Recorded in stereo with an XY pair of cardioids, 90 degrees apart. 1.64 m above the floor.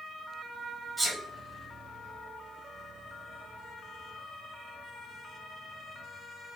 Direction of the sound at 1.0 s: 25° right.